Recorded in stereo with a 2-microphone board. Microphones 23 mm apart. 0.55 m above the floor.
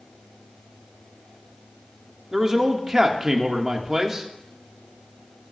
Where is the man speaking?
25° right (ahead or behind), 1.2 m.